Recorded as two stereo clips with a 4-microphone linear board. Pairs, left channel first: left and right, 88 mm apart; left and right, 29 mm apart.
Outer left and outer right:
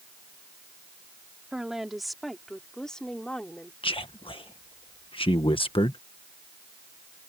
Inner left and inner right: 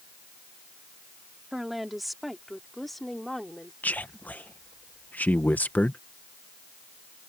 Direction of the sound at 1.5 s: 5° right (ahead or behind).